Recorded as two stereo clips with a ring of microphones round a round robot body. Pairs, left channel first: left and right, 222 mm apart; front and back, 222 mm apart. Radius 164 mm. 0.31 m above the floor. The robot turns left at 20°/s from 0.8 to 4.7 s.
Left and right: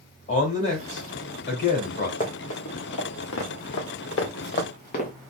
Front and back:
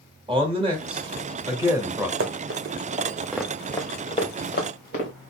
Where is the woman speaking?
130° left, 1.8 m; by 2.1 s 100° left, 1.8 m.